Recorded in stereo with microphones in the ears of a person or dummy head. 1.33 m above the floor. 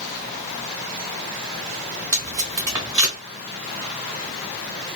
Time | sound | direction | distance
2.1 | tape being pulled | 15° right (ahead or behind) | 1.3 m